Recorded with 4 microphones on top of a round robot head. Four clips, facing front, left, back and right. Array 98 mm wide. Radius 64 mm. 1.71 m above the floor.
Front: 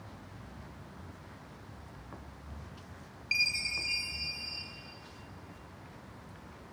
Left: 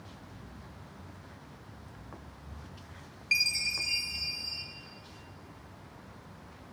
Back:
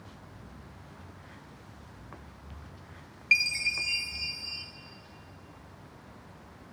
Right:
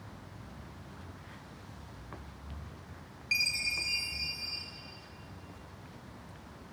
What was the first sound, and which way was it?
A chime, 170° left.